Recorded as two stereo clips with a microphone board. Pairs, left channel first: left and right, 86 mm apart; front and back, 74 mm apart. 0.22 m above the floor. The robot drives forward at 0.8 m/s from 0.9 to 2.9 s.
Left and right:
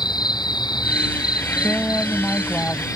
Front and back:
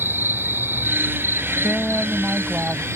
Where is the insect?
120° left; by 3.0 s 130° left.